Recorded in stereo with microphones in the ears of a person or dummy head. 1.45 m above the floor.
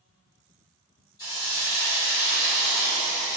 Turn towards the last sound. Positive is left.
turn(degrees=15)  # may be behind; listen again after turning